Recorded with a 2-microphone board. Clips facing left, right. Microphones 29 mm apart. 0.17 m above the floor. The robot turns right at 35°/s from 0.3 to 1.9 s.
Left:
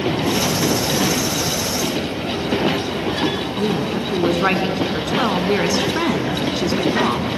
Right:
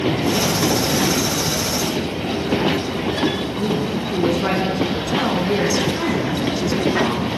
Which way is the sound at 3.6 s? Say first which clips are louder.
Left 2 dB; 35° left (ahead or behind).